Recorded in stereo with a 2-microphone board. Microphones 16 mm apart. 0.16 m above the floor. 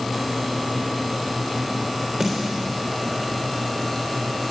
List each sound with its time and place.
2.2 s a snare drum: 50° right (ahead or behind), 3.5 m